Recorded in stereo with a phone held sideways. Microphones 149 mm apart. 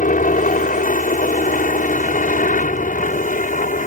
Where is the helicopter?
65° left (ahead or behind); by 3.9 s 60° left (ahead or behind).